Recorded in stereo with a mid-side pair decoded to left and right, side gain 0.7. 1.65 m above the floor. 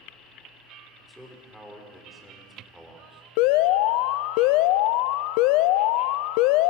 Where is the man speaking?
Straight ahead, 5.5 m.